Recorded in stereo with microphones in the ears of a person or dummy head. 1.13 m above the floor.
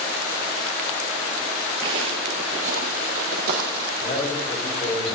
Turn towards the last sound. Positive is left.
turn(degrees=25)  # may be behind; listen again after turning